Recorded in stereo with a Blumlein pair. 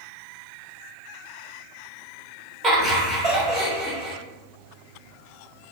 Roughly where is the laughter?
Ahead.